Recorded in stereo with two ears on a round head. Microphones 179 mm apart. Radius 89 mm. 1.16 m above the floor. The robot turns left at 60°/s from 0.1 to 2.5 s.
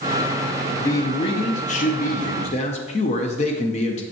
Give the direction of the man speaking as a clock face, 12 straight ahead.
7 o'clock.